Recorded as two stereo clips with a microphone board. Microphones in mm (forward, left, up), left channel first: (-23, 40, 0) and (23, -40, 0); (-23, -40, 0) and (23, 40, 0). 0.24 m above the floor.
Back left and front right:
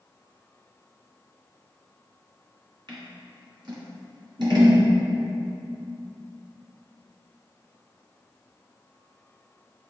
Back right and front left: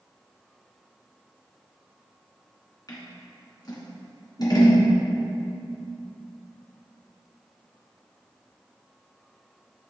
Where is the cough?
I don't hear a cough.